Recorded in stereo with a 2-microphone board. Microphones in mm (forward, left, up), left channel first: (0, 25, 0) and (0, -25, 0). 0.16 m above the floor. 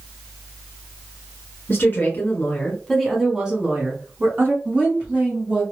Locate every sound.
1.7 s a woman speaking: 45° left (ahead or behind), 1.4 m; by 4.5 s 45° right (ahead or behind), 1.5 m
4.7 s a woman speaking: 25° right (ahead or behind), 1.2 m